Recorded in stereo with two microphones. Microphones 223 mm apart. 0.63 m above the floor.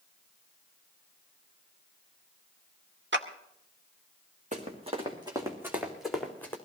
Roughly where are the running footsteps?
Right.